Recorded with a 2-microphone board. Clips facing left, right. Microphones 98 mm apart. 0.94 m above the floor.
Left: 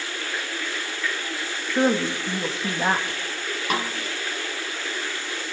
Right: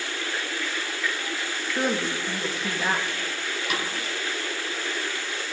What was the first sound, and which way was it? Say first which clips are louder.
A woman speaking: left 5 dB; 30° left (ahead or behind).